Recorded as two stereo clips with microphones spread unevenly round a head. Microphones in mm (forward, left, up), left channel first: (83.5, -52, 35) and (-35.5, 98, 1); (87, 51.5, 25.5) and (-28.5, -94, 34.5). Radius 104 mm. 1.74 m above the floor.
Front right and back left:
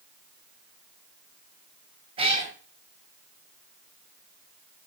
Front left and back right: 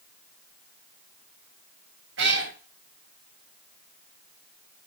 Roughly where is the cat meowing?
Behind.